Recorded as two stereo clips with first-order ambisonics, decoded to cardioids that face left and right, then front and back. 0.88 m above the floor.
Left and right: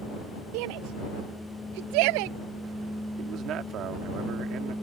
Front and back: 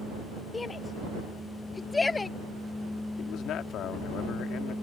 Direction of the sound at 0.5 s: 75° right.